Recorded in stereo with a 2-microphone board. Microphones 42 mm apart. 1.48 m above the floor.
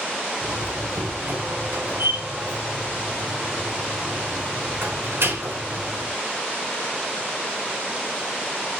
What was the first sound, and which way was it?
A door slam, 70° right (ahead or behind).